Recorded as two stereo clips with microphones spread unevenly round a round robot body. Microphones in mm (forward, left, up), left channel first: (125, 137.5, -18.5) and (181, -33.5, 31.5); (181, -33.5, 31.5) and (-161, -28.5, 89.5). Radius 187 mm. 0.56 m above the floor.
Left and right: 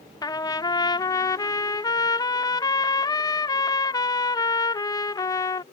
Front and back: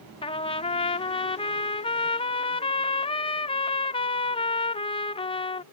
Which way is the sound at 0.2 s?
60° left.